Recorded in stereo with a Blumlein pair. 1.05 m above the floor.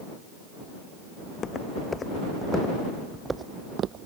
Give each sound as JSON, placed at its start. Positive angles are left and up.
{"t": 1.2, "sound": "footsteps", "azimuth_deg": 20}